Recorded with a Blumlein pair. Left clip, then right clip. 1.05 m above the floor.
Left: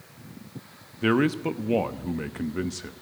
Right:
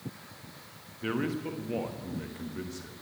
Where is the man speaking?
30° left, 1.1 m.